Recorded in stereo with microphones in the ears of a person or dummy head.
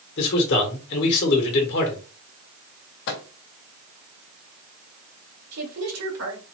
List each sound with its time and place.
0.2 s a man speaking: 55° left (ahead or behind), 1.2 m
3.1 s a microwave: 65° left (ahead or behind), 0.8 m
5.5 s a woman speaking: 85° right, 2.0 m